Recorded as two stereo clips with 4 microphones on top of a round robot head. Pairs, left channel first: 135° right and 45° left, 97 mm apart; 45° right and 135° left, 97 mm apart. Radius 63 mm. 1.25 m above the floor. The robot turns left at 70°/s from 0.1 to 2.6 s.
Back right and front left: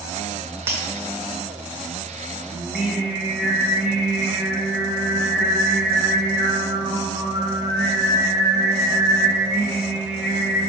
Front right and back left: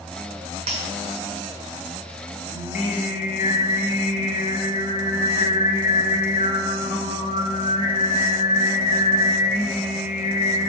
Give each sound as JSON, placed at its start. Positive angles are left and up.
{"t": 0.7, "sound": "breaking glass", "azimuth_deg": 105, "distance_m": 1.6}
{"t": 2.5, "sound": "singing", "azimuth_deg": -35, "distance_m": 2.0}